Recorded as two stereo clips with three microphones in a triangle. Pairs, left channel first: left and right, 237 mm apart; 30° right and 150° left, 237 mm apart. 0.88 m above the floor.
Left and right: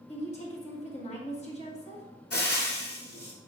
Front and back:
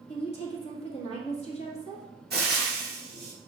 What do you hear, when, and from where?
0.1 s a woman speaking: 30° left, 1.9 m
2.3 s frying: 105° left, 1.8 m